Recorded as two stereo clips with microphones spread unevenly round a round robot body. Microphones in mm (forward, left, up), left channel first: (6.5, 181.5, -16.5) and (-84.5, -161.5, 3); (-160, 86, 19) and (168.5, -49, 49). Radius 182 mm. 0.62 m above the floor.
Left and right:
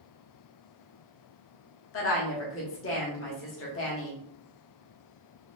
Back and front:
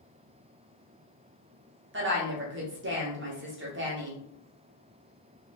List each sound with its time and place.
1.9 s a woman speaking: 35° left, 1.2 m